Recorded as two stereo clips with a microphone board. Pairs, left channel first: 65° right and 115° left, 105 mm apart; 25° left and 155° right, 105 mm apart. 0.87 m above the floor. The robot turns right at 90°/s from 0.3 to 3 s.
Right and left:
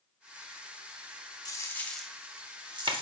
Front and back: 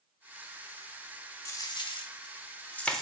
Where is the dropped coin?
30° right, 0.6 m; by 3.0 s 110° left, 0.6 m.